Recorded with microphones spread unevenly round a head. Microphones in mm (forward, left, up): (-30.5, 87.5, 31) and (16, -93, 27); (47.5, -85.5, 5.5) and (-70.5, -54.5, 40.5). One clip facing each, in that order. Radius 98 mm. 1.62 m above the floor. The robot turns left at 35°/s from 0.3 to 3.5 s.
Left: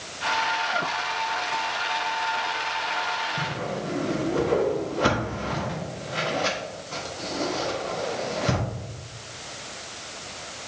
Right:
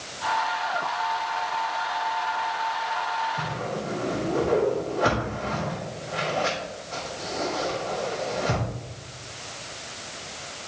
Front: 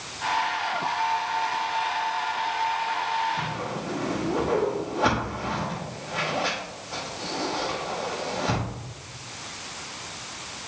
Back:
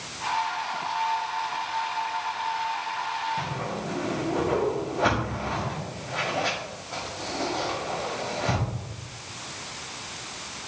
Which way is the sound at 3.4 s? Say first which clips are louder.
Even, even; 95° left.